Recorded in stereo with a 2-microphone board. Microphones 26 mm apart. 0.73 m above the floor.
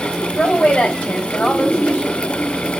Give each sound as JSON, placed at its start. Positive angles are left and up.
{"t": 0.4, "sound": "a woman speaking", "side_deg": 55, "distance_m": 3.5}